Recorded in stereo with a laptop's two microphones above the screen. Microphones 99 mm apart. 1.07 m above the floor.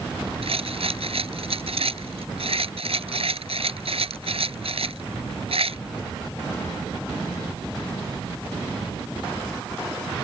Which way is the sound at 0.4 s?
75° right (ahead or behind).